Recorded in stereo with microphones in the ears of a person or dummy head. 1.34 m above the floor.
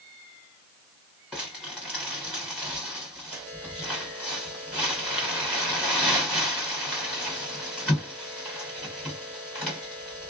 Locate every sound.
1.3 s crumpling: 5° left (ahead or behind), 1.6 m